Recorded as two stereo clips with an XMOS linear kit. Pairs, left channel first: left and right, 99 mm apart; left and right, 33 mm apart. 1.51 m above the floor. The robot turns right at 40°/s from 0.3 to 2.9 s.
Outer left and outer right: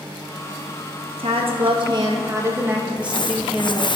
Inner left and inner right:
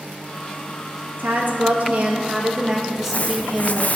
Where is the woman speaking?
80° right, 1.5 m; by 4.0 s 10° right, 1.5 m.